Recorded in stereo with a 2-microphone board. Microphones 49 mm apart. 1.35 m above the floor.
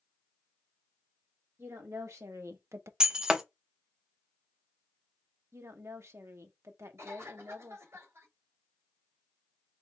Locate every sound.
1.6 s a woman speaking: 80° right, 1.9 m; by 2.9 s 60° right (ahead or behind), 0.5 m
3.0 s breaking glass: 15° right (ahead or behind), 0.7 m
5.5 s a woman speaking: 65° right (ahead or behind), 0.8 m
7.0 s a cough: 65° right (ahead or behind), 3 m